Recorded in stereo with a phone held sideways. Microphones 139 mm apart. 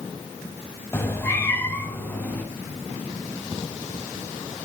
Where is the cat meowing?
20° left (ahead or behind), 2.0 m; by 2.4 s 15° left (ahead or behind), 3.5 m.